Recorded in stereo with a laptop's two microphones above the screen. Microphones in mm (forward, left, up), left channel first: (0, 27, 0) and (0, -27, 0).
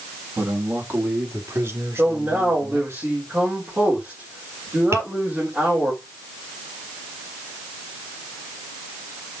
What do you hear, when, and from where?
0.4 s a man speaking: 45° right (ahead or behind), 1.6 m; by 3.0 s 65° right (ahead or behind), 4 m
2.0 s a man speaking: 30° right (ahead or behind), 4 m
4.9 s tapping: 65° right (ahead or behind), 2.5 m